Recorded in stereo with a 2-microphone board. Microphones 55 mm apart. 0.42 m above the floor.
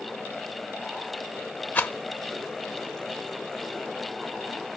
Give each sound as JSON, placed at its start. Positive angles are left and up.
{"t": 1.8, "sound": "a rattle", "side_deg": 30, "distance_m": 0.7}